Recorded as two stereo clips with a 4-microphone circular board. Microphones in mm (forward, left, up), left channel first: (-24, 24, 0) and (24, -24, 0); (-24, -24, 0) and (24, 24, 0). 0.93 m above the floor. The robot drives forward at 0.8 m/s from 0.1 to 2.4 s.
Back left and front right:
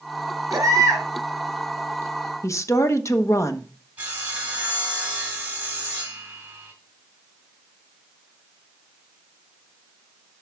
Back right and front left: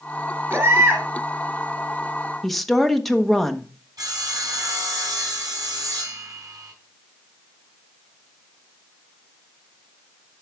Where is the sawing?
20° left, 3 m.